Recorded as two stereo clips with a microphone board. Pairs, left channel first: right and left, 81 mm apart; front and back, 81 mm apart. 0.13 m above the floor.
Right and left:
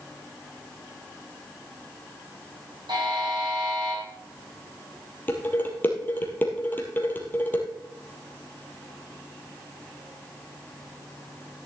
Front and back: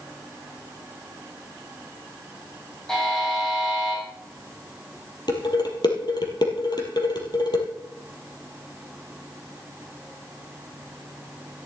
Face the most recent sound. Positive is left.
turn(degrees=-25)